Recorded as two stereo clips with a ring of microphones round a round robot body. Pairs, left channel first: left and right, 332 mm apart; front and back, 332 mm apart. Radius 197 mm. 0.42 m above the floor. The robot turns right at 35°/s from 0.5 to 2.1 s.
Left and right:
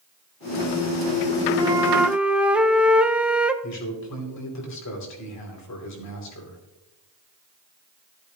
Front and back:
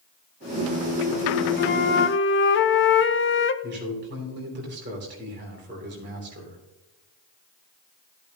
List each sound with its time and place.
1.6 s a flute: 25° right, 0.6 m; by 3.5 s 5° right, 0.6 m
3.6 s a man speaking: 125° left, 2.5 m